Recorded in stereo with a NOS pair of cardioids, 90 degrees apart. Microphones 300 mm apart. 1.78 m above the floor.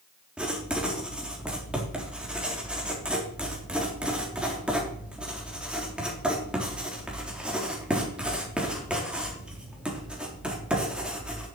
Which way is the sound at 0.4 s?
5° right.